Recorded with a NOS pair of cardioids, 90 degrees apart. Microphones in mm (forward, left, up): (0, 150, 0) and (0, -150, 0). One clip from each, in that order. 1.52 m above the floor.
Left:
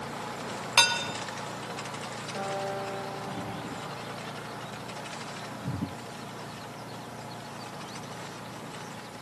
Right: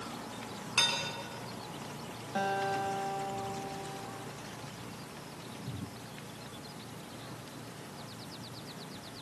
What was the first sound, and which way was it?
Dishes clattering, 60° left.